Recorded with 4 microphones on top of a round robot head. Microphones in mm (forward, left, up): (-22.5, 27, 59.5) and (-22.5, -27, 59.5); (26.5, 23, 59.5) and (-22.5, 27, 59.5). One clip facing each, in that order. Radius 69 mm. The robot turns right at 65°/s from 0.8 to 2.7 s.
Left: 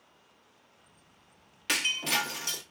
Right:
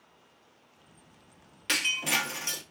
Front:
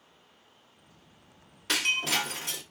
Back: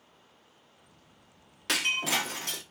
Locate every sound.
1.7 s breaking glass: 175° left, 1.0 m; by 2.6 s 125° right, 1.0 m